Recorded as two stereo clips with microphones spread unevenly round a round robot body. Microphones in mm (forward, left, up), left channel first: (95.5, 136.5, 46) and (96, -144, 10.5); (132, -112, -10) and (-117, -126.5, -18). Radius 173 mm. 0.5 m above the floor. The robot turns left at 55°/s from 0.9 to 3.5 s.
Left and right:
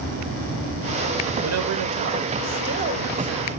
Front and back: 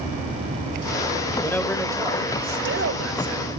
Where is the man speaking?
70° right, 2 m; by 3.5 s 175° left, 2 m.